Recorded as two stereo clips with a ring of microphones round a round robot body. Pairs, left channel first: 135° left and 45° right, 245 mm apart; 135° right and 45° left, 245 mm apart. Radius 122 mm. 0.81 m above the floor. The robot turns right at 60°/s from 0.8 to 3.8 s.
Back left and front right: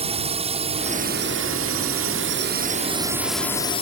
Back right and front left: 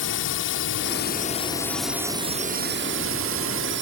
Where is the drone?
105° right; by 3.8 s 75° left.